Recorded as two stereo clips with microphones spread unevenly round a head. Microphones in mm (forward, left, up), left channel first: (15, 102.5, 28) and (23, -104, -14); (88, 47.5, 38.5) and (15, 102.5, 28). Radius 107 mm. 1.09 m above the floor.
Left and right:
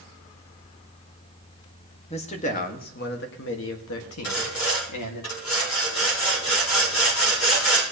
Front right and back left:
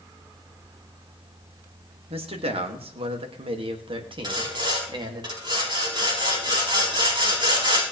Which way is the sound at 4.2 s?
105° left.